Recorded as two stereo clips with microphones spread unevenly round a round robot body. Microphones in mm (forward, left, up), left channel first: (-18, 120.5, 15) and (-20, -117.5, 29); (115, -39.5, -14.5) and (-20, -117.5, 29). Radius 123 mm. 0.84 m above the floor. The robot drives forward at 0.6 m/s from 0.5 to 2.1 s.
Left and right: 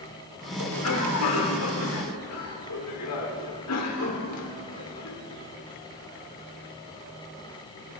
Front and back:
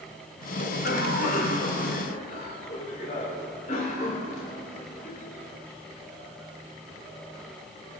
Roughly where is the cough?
Left.